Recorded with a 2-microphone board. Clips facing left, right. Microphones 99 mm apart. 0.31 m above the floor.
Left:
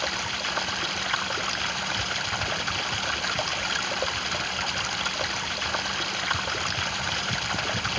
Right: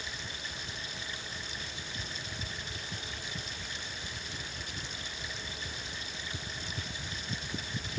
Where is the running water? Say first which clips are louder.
Left 13 dB; 70° left (ahead or behind).